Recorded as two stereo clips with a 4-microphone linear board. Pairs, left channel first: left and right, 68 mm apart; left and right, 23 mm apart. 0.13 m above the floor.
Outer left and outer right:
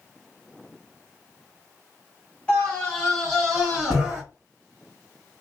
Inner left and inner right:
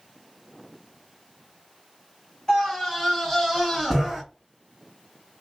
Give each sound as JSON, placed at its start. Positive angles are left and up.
{"t": 2.5, "sound": "a scream", "side_deg": 15, "distance_m": 1.9}